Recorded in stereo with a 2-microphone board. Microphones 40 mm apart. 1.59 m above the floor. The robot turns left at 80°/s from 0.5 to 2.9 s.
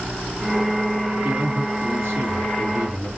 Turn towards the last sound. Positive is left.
turn(degrees=-160)